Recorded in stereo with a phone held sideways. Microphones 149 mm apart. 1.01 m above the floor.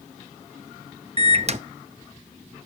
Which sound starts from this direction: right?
A microwave, at 1.2 s.